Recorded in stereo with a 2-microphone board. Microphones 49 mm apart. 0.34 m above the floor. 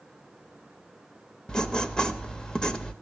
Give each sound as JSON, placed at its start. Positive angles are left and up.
{"t": 1.5, "sound": "writing", "side_deg": 15, "distance_m": 0.6}